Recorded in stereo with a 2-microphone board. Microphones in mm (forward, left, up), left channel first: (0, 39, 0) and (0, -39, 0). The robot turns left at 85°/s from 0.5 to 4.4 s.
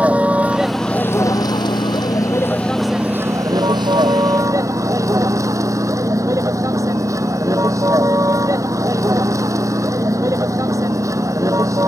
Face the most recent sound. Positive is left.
turn(degrees=-130)